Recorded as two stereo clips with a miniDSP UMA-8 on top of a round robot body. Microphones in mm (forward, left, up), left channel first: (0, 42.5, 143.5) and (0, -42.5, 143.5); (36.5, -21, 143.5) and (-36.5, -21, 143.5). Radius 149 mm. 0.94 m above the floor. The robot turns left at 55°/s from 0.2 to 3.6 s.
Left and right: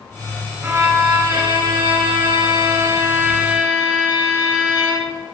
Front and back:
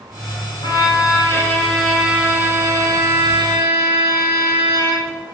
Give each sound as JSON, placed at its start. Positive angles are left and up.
{"t": 0.6, "sound": "a violin", "azimuth_deg": -15, "distance_m": 9.0}